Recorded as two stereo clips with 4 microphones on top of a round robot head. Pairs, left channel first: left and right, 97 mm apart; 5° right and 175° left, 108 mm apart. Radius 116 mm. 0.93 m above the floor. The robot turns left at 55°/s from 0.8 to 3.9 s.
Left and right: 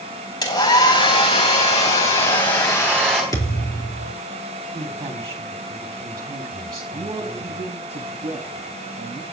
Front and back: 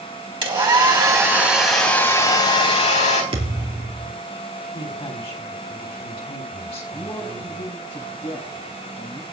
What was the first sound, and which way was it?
A hair dryer, 135° left.